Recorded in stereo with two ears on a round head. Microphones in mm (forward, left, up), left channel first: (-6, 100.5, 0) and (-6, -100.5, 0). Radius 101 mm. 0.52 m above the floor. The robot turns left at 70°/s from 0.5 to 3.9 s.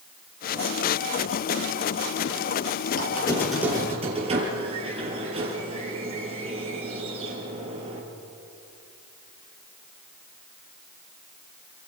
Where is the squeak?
40° left, 4.5 m; by 8.0 s 25° right, 4.5 m.